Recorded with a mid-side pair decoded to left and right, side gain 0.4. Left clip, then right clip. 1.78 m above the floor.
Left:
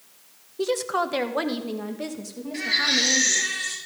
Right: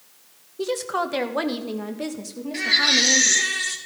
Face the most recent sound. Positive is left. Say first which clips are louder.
# right 4 dB
turn(degrees=-45)